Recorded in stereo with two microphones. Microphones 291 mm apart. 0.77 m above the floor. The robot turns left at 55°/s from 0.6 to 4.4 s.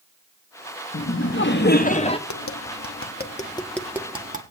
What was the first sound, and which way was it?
Laughter, 95° left.